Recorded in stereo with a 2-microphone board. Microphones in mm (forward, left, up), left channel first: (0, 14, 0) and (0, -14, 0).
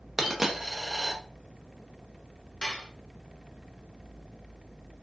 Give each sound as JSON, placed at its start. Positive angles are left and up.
{"t": 0.2, "sound": "a dropped coin", "side_deg": -10, "distance_m": 0.8}
{"t": 2.6, "sound": "dishes clattering", "side_deg": 25, "distance_m": 1.2}